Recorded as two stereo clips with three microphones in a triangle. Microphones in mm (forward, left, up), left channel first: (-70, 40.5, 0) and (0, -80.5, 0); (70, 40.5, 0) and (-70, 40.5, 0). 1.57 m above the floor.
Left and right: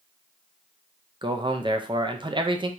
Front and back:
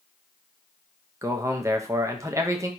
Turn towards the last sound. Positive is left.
turn(degrees=-115)